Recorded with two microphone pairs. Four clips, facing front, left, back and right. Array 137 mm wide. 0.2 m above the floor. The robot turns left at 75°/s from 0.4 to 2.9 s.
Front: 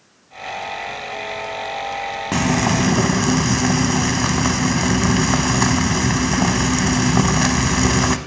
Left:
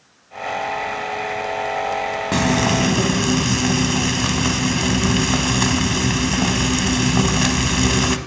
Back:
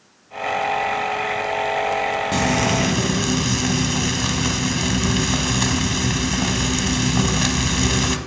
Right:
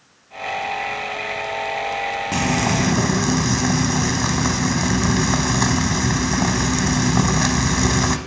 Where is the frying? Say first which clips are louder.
Left 3 dB, front 4 dB; 35° left, 1.0 m; by 8.2 s 10° right, 1.0 m.